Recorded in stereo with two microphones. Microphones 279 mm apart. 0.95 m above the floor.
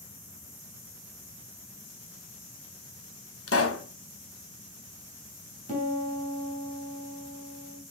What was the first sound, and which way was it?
A pop, 55° left (ahead or behind).